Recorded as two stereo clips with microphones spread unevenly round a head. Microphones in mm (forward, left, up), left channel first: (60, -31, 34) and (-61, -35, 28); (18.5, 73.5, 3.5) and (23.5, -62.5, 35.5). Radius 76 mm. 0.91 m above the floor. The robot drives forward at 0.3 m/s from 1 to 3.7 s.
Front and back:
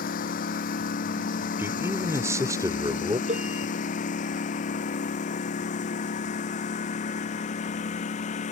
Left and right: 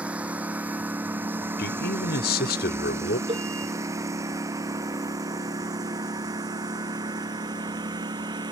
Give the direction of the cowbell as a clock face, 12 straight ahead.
5 o'clock.